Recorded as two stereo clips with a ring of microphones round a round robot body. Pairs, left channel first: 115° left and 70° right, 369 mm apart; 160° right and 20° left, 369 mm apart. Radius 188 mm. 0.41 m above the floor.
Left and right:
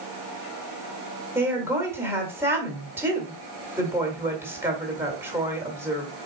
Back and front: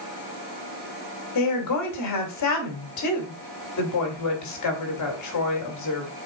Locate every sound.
1.4 s a woman speaking: 150° right, 1.8 m